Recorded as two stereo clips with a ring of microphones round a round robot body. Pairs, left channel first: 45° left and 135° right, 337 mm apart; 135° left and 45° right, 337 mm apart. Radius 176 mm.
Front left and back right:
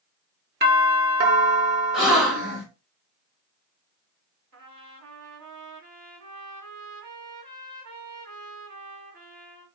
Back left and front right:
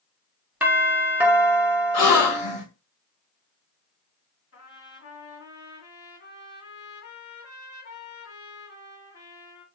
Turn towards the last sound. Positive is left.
turn(degrees=-175)